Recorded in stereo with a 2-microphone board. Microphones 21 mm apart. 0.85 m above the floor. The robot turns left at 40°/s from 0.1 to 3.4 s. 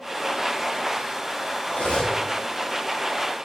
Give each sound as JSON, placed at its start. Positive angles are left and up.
{"t": 1.7, "sound": "cutlery clinking", "side_deg": 55, "distance_m": 0.6}